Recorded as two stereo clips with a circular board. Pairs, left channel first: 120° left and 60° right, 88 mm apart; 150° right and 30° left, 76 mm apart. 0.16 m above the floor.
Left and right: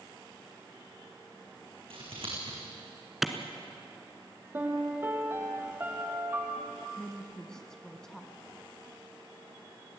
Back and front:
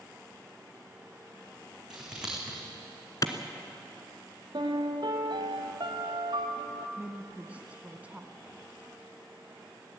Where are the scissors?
50° right, 5 m.